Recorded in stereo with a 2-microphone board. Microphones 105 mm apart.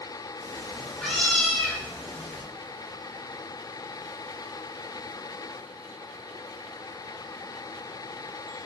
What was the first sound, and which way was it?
A cat meowing, 10° left (ahead or behind).